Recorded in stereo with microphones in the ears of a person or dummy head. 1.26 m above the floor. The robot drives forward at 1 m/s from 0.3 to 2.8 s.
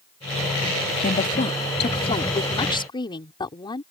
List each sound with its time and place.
1.0 s a woman speaking: 40° left (ahead or behind); by 3.8 s 25° left (ahead or behind)